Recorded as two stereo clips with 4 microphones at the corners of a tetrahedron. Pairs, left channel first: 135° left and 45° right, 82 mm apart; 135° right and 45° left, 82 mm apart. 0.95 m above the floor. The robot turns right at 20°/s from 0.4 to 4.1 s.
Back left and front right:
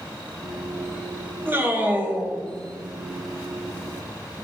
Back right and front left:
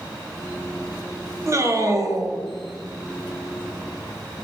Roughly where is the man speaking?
Ahead.